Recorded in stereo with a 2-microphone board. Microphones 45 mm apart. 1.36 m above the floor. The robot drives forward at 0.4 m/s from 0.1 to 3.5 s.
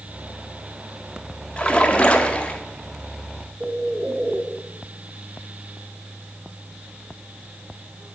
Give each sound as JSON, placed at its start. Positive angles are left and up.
{"t": 1.6, "sound": "a splash", "side_deg": 25, "distance_m": 1.0}
{"t": 3.6, "sound": "a bird", "side_deg": -25, "distance_m": 0.9}